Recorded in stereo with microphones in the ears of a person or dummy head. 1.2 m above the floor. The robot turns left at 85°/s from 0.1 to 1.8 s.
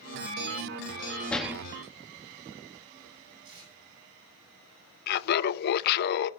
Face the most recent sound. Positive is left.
turn(degrees=60)  # may be behind; listen again after turning